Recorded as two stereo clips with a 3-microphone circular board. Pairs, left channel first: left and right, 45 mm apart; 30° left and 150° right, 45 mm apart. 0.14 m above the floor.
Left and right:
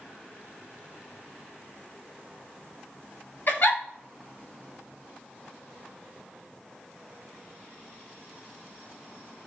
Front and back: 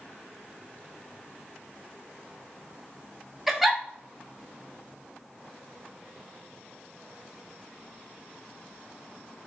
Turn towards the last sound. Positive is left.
turn(degrees=125)